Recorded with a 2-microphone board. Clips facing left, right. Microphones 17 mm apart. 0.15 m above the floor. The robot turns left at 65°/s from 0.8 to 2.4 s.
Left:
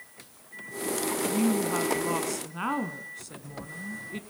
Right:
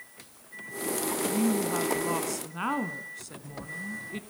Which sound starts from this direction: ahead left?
A woman speaking, at 1.2 s.